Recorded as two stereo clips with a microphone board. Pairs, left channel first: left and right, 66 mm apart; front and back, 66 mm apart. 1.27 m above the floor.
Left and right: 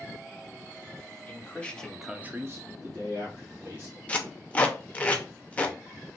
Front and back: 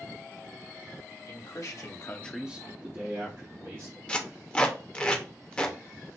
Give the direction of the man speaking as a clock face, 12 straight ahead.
11 o'clock.